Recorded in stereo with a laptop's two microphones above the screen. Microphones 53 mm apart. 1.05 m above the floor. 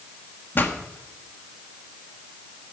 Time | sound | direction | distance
0.6 | a pop | 40° left (ahead or behind) | 1.4 m